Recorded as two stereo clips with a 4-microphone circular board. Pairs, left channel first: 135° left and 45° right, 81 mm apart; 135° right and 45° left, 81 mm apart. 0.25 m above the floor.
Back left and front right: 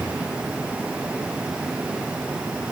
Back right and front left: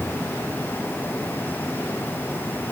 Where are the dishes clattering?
No dishes clattering in this recording.